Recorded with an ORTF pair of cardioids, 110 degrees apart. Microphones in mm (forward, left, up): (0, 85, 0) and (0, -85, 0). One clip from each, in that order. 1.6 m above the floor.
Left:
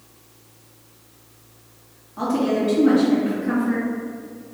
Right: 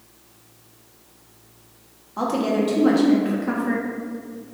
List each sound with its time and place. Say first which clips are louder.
2.2 s a woman speaking: even; 65° right, 1.5 m